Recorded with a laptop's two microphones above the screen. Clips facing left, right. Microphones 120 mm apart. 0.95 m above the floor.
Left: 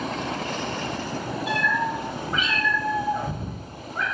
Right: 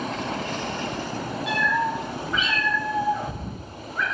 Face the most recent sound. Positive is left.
turn(degrees=40)  # may be behind; listen again after turning